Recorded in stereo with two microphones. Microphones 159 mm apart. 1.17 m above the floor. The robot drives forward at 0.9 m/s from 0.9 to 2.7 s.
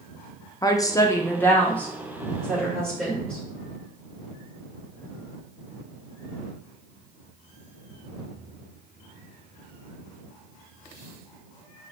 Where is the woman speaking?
20° left (ahead or behind), 0.5 m; by 3.4 s 5° left (ahead or behind), 2 m.